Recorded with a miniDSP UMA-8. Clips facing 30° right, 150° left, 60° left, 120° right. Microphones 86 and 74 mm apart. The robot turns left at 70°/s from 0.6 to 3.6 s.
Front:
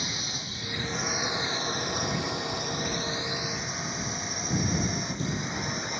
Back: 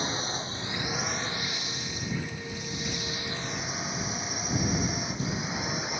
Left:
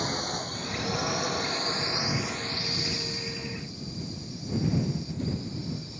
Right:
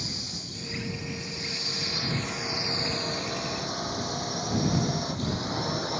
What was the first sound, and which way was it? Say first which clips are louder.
A drone: back 5 dB, left 8 dB; 90° left.